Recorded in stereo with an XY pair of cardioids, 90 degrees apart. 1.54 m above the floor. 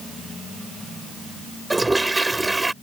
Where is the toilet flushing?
15° right.